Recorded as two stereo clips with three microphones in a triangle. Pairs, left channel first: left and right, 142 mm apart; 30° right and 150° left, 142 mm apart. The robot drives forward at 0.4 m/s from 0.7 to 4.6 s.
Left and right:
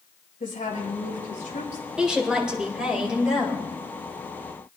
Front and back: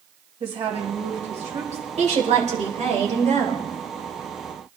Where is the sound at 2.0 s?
175° right, 2.5 m.